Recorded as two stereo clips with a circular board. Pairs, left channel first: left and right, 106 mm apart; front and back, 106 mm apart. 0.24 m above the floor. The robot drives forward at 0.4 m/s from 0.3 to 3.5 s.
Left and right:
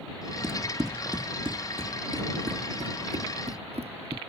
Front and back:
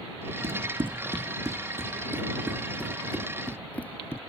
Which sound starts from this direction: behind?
Running footsteps, at 0.4 s.